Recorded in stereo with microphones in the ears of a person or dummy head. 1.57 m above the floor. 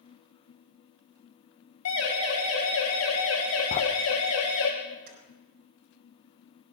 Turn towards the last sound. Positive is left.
turn(degrees=-55)  # may be behind; listen again after turning